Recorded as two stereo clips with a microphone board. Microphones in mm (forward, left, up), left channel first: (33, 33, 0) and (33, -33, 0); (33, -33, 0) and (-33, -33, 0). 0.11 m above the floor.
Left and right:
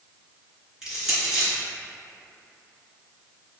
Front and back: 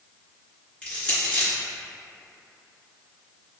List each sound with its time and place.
0.8 s crushing: 30° right, 1.8 m